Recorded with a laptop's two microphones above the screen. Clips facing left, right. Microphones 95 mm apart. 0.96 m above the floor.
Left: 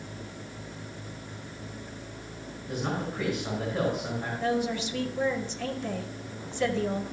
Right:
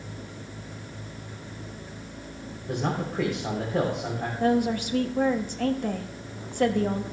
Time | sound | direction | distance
2.7 | a man speaking | 80° right | 3.5 m
4.4 | a woman speaking | 50° right (ahead or behind) | 1.1 m